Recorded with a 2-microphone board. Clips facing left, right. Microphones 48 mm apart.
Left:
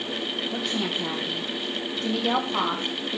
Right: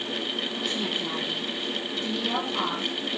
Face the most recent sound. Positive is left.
turn(degrees=40)  # may be behind; listen again after turning